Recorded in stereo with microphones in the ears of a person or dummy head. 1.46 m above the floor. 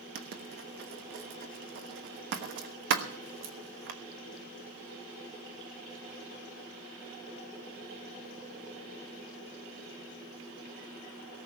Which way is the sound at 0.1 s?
55° right (ahead or behind).